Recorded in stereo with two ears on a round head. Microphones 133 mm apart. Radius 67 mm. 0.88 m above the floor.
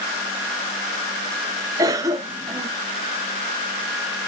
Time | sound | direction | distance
1.8 | a cough | 25° right (ahead or behind) | 0.7 m